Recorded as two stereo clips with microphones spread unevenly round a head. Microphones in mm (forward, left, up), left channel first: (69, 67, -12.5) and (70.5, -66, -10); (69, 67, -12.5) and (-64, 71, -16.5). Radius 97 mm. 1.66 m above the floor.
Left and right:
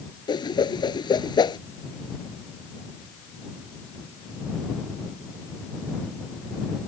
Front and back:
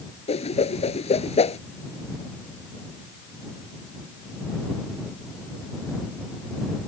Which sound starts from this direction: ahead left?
A whoosh, at 0.3 s.